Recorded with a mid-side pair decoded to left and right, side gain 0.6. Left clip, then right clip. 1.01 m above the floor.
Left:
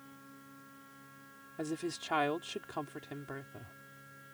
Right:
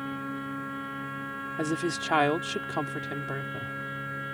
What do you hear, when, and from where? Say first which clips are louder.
0.0 s a machine running: right 20 dB; 70° right
1.6 s a woman speaking: right 8 dB; 40° right